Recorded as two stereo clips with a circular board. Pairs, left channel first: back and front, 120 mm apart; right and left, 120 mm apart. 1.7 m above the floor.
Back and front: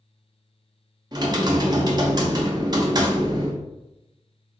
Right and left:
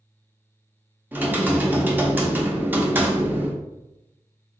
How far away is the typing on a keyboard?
About 0.6 m.